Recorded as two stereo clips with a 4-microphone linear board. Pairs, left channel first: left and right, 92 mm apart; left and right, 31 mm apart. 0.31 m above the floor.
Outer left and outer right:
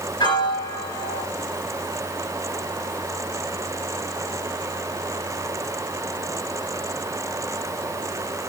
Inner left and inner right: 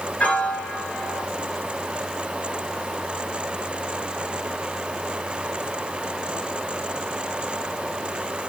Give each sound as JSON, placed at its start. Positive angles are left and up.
{"t": 0.2, "sound": "a piano", "side_deg": 55, "distance_m": 2.5}